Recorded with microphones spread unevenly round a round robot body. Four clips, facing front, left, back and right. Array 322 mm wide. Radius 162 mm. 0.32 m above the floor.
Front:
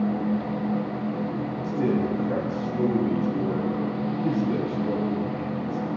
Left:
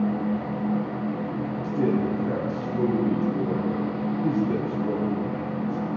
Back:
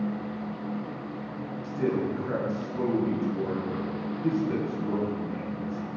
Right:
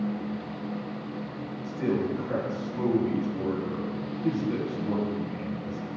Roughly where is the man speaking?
Left.